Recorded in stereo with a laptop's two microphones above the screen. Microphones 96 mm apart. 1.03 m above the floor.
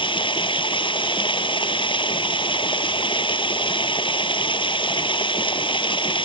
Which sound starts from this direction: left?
Running water, at 0.0 s.